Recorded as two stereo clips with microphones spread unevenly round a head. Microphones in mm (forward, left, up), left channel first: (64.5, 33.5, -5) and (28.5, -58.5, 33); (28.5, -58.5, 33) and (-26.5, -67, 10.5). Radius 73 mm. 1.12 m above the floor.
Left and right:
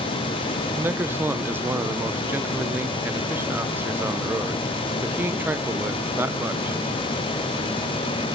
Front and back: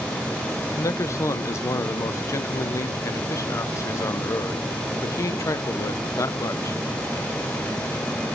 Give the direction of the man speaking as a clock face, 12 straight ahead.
1 o'clock.